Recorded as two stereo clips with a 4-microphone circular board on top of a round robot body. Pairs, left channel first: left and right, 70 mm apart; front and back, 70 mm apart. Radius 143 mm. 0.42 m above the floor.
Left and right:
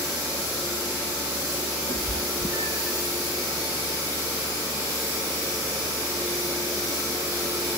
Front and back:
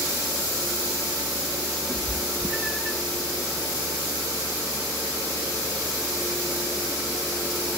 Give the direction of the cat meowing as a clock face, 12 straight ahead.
9 o'clock.